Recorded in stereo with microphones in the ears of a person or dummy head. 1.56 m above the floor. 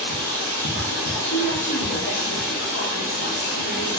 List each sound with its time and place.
0.0 s running water: 45° left (ahead or behind), 0.8 m
1.3 s a woman speaking: 55° left (ahead or behind), 1.0 m